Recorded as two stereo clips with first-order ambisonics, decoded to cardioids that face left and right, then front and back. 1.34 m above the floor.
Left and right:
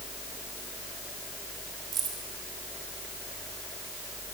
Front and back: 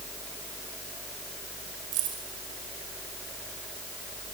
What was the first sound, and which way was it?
Keys jangling, 150° right.